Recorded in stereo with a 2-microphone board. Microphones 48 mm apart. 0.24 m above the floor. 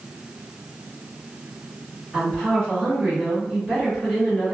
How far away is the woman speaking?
About 1.8 m.